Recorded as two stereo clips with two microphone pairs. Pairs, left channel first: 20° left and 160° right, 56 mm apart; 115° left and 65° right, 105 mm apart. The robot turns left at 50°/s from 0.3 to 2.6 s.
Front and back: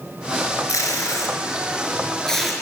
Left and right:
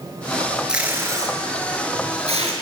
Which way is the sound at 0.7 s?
20° left.